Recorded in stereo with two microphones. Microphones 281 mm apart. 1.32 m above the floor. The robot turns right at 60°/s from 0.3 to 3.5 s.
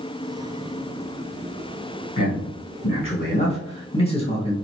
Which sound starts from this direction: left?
A man speaking, at 2.2 s.